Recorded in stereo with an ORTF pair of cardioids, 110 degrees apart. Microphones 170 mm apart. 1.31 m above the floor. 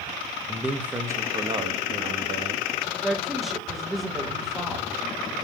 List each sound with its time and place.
0.5 s a man speaking: 5° left, 1.1 m; by 2.6 s 40° right, 2 m
3.0 s a woman speaking: straight ahead, 1.7 m